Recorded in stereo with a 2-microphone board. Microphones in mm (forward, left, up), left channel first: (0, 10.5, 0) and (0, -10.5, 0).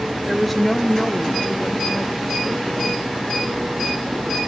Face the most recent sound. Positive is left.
turn(degrees=55)  # may be behind; listen again after turning